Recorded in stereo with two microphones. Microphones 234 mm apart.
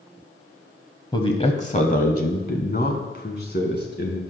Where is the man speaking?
20° left (ahead or behind), 1.0 m; by 4.2 s 45° left (ahead or behind), 2.5 m.